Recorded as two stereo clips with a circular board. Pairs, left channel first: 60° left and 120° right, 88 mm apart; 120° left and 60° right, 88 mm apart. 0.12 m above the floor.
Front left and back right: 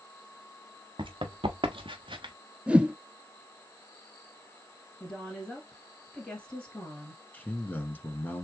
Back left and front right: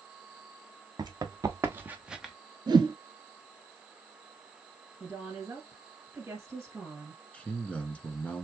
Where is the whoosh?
45° right, 0.8 m.